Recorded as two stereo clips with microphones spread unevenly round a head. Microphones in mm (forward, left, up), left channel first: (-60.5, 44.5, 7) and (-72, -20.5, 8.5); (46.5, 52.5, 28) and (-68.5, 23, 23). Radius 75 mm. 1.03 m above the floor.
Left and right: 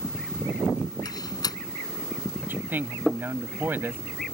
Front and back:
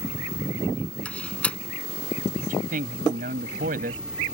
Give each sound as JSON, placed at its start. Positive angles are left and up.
{"t": 1.1, "sound": "a door slam", "azimuth_deg": 95}
{"t": 2.4, "sound": "a man speaking", "azimuth_deg": -160}